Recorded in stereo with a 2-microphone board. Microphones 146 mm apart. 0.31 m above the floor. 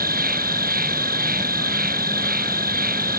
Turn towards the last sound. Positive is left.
turn(degrees=-90)